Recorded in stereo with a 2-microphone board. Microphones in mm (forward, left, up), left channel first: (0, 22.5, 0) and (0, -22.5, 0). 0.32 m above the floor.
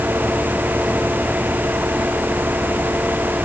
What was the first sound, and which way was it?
Only background noise.